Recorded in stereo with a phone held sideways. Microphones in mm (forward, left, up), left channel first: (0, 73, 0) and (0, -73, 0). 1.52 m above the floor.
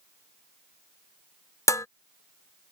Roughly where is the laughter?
No laughter in this recording.